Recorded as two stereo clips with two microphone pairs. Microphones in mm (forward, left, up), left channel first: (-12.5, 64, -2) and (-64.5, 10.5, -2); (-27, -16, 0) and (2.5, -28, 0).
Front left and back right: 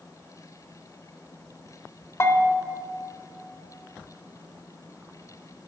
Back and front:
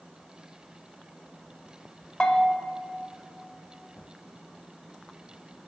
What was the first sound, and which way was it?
A bell, 100° left.